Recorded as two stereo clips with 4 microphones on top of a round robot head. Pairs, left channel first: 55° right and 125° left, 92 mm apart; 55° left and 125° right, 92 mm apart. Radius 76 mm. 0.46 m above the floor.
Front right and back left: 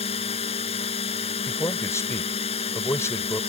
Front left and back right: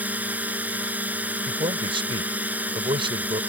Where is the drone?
50° right.